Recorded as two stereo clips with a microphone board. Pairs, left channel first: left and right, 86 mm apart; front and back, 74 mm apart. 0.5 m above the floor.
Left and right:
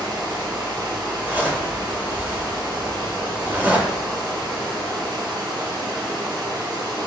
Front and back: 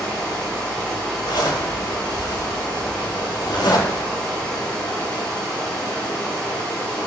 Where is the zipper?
20° right, 0.7 m.